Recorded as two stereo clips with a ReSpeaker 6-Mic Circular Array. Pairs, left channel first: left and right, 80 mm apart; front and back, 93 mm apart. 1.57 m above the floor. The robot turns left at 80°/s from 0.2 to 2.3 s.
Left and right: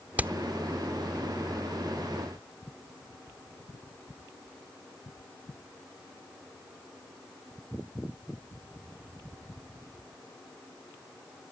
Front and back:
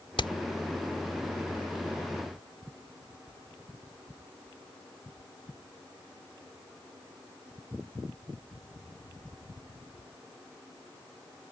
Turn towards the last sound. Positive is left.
turn(degrees=170)